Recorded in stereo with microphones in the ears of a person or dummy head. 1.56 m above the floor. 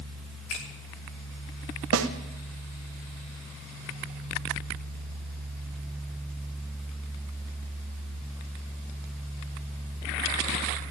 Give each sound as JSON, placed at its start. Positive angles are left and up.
{"t": 0.5, "sound": "a finger snap", "side_deg": 80, "distance_m": 3.0}
{"t": 1.9, "sound": "a snare drum", "side_deg": -85, "distance_m": 0.9}